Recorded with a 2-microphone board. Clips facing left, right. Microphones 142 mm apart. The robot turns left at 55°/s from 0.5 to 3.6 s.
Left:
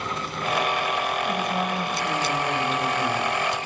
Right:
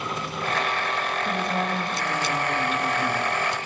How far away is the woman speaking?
About 7 m.